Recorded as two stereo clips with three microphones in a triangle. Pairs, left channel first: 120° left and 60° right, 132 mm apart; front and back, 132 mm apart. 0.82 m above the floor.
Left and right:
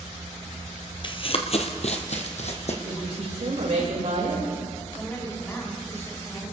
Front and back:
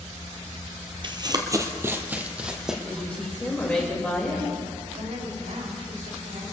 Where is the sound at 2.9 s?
80° right, 3 m.